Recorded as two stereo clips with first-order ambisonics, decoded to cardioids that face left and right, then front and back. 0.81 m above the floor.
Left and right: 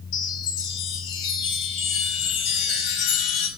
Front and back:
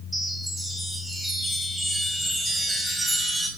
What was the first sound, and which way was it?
A chime, 95° left.